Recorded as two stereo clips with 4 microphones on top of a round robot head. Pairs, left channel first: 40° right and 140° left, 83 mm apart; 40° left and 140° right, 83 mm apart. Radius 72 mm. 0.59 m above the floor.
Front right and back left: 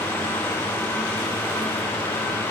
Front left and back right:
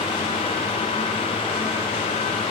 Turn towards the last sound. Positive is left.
No sound to turn to.